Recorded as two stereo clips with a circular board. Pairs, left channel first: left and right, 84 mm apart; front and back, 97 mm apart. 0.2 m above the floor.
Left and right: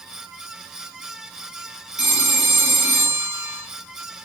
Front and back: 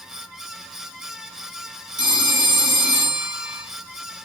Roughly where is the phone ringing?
Behind.